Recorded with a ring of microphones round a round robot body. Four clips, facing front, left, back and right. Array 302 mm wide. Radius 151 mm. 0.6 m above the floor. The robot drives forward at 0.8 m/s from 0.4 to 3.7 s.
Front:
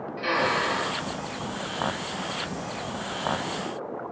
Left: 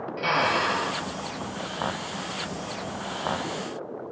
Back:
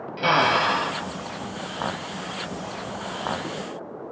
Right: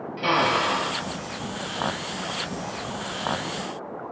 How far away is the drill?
About 3 m.